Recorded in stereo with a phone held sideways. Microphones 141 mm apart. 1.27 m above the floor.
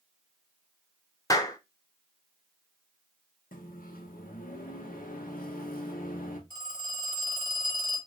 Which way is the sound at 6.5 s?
70° left (ahead or behind).